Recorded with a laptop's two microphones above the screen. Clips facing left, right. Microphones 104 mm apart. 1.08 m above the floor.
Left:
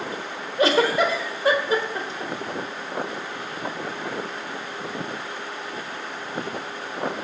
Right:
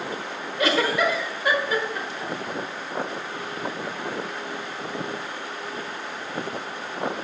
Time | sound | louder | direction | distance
0.6 | a giggle | left 3 dB | 35° left (ahead or behind) | 1.2 m